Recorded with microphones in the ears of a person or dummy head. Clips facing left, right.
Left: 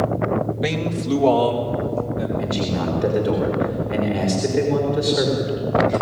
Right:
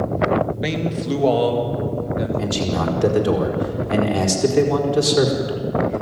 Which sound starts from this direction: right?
A man speaking, at 2.4 s.